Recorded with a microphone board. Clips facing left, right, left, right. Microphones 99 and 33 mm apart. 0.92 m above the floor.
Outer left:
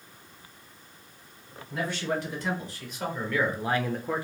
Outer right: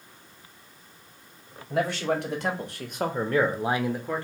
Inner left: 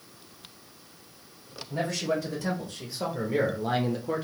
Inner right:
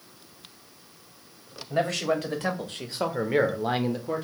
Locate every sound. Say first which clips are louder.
1.7 s a man speaking: outer right 4 dB, inner right 3 dB; 75° right (ahead or behind), 1.4 m; by 4.2 s 15° left (ahead or behind), 0.5 m